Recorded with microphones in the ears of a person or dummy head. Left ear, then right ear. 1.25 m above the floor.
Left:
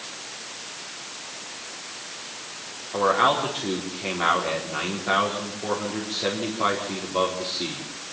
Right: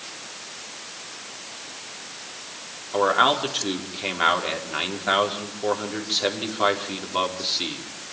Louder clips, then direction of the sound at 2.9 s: Right 1 dB; 40° right (ahead or behind).